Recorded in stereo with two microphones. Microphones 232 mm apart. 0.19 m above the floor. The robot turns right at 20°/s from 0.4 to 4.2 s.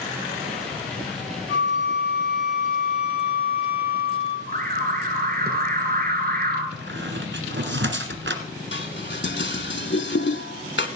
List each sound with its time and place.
1.5 s a flute: 150° right, 4 m; by 4.4 s 95° right, 4 m
4.5 s an alarm: 45° right (ahead or behind), 2 m
6.7 s a squeak: 55° right (ahead or behind), 1.5 m
8.7 s dishes clattering: 55° left (ahead or behind), 1.1 m